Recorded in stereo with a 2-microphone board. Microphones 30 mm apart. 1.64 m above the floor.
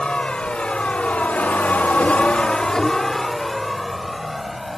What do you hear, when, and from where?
0.0 s a vehicle: 35° left (ahead or behind); by 4.8 s centre (ahead or behind)